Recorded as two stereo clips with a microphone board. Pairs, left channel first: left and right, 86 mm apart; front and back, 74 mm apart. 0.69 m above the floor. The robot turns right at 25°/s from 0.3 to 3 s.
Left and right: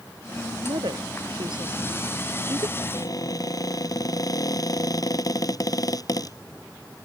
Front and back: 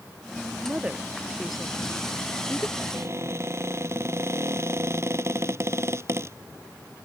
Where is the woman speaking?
115° right; by 2.7 s 60° right.